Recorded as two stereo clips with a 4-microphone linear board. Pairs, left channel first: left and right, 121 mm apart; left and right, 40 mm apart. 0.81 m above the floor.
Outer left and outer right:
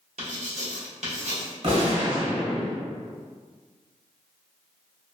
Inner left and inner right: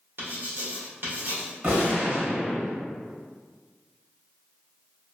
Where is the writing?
70° right (ahead or behind), 1.4 m.